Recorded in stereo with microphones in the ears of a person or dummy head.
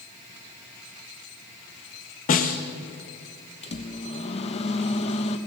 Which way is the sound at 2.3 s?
45° left (ahead or behind).